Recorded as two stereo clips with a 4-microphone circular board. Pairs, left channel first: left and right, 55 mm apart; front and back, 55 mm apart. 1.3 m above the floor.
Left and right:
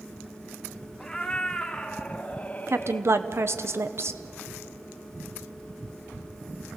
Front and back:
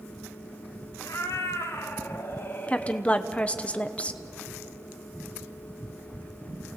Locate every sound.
1.0 s a cat meowing: 10° left, 1.6 m; by 3.1 s 60° left, 0.7 m
2.7 s a woman speaking: 65° right, 0.8 m